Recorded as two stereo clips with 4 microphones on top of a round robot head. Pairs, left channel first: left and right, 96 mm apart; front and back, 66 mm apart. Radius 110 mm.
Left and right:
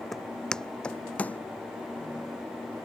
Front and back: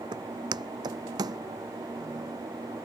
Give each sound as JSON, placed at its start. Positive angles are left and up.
{"t": 0.1, "sound": "footsteps", "azimuth_deg": 180}